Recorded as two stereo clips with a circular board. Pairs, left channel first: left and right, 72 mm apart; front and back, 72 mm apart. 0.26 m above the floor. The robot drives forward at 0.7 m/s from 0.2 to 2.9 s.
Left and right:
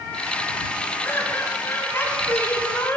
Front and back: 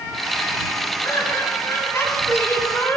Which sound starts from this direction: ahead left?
Laughter, at 1.0 s.